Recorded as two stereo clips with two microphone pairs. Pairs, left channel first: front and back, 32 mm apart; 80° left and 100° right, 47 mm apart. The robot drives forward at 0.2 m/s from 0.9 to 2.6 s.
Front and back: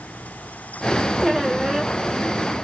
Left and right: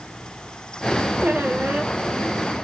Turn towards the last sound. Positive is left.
turn(degrees=-95)